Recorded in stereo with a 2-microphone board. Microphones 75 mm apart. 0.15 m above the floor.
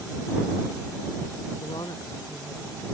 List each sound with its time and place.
1.6 s a woman speaking: 70° left (ahead or behind)